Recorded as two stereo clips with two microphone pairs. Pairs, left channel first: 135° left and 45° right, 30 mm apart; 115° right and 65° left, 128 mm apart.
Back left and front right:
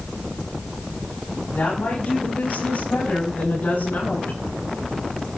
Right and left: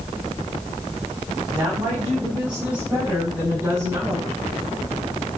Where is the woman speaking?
150° left, 7 m; by 4.4 s 135° left, 9 m.